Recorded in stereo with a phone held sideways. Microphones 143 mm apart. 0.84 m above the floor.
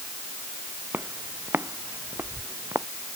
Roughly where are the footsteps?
Centre.